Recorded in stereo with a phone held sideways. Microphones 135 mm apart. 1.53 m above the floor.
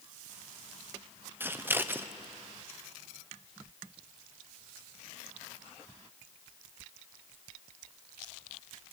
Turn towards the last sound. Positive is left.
turn(degrees=-15)  # may be behind; listen again after turning